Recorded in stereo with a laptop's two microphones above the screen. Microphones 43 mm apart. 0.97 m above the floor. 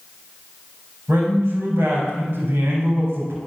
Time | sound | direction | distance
1.1 | a man speaking | 75° right (ahead or behind) | 3.5 m